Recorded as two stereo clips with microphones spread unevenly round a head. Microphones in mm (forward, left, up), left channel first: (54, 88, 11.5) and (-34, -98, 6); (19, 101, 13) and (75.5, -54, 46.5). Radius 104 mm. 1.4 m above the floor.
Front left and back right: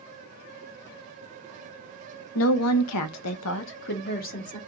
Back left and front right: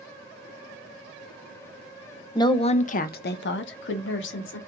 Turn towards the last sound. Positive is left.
turn(degrees=120)